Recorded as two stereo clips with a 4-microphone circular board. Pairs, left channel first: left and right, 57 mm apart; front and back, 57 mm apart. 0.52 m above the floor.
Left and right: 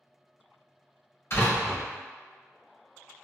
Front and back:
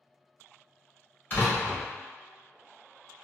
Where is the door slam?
55° left, 1.8 m.